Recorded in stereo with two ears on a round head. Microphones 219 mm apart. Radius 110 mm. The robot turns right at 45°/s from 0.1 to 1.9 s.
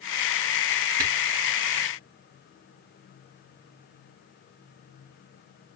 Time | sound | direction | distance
1.0 | a camera shutter | 60° right (ahead or behind) | 4.5 m